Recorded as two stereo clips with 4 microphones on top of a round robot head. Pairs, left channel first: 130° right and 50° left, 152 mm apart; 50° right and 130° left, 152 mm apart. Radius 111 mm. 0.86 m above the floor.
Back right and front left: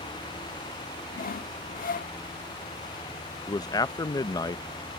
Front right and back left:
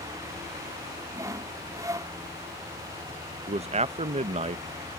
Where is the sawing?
160° right.